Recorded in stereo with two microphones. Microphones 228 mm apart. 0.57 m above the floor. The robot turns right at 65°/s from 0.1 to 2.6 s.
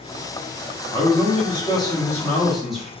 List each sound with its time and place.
0.9 s a man speaking: 20° left (ahead or behind), 0.7 m; by 2.9 s centre (ahead or behind), 0.7 m